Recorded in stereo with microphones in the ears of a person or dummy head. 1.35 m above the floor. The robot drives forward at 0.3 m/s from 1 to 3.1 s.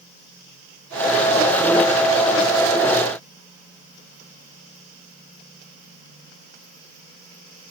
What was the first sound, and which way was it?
Only background noise.